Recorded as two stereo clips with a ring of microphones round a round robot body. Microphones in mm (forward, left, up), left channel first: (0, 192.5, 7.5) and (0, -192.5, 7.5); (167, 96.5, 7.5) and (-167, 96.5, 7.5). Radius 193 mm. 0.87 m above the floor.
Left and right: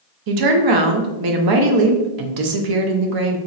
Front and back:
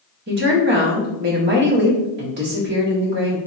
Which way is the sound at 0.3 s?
120° right.